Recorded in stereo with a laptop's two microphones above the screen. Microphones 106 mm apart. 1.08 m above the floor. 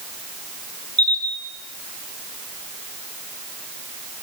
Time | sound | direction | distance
1.0 | a camera shutter | 10° left (ahead or behind) | 6.5 m